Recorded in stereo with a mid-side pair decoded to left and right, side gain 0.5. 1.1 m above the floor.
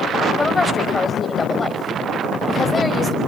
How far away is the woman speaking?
About 5 m.